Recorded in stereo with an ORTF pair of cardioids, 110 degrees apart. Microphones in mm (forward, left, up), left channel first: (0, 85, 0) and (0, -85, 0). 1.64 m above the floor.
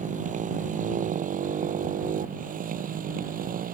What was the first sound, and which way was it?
A motorcycle, 50° right.